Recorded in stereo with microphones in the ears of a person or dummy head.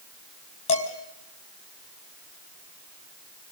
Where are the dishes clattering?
35° left (ahead or behind), 3.5 m.